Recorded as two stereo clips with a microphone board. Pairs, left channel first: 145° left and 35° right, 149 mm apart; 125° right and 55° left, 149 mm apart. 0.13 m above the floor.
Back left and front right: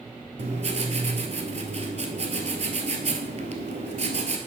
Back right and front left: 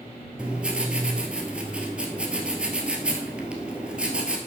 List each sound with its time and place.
0.4 s writing: 25° right, 1.0 m